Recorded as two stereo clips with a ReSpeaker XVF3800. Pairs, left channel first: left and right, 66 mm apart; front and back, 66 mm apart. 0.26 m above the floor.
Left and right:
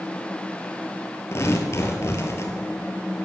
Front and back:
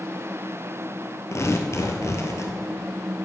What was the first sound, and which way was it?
Tearing paper, 40° left.